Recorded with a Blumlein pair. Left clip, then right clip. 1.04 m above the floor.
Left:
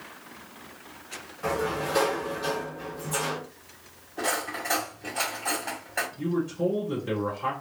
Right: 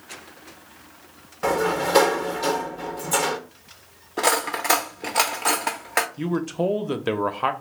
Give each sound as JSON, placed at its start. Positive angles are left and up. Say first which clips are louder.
{"t": 1.4, "sound": "a sliding door", "louder": "right 6 dB", "azimuth_deg": -60, "distance_m": 0.7}
{"t": 4.2, "sound": "cutlery clinking", "louder": "right 7 dB", "azimuth_deg": -45, "distance_m": 0.6}
{"t": 6.2, "sound": "a man speaking", "louder": "right 3 dB", "azimuth_deg": -40, "distance_m": 0.7}